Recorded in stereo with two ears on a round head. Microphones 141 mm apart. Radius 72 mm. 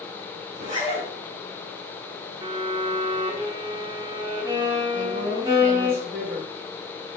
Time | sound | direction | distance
0.5 | a zipper | 50° right (ahead or behind) | 4 m
2.4 | a violin | 30° right (ahead or behind) | 1.1 m
4.9 | a woman speaking | 60° right (ahead or behind) | 2.5 m